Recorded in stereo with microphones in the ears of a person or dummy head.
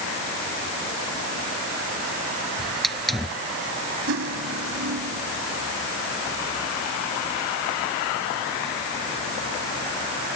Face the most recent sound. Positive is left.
turn(degrees=-75)  # may be behind; listen again after turning